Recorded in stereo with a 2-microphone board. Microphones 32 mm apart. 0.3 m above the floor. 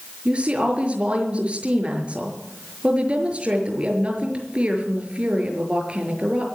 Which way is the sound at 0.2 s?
40° right (ahead or behind).